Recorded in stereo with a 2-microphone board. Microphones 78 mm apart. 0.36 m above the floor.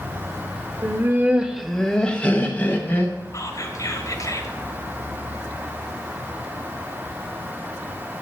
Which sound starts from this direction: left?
Whispering, at 3.3 s.